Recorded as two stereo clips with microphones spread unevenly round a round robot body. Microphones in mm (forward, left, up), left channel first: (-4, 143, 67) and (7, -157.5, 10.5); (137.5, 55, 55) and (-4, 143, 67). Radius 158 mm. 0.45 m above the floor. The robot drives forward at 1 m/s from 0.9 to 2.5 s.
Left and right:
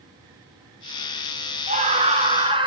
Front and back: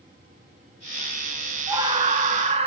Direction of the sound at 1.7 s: 145° right.